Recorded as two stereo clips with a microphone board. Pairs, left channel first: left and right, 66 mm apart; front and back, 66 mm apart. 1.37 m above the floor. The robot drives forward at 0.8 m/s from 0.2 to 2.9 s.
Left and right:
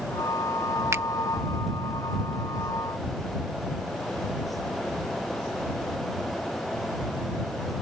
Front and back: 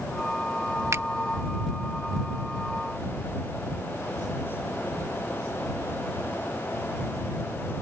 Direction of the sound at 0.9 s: 135° right.